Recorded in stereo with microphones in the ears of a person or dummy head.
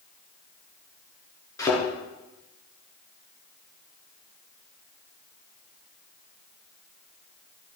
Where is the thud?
20° left (ahead or behind), 6 m.